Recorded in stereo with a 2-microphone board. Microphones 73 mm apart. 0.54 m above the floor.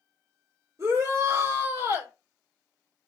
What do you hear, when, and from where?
0.8 s a shout: 45° right (ahead or behind), 1.3 m